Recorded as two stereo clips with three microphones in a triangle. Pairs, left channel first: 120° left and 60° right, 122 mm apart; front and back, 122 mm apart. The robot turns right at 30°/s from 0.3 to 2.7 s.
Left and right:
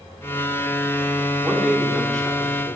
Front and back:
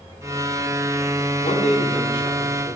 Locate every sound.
1.4 s a man speaking: 15° left, 1.7 m; by 2.8 s 55° left, 1.7 m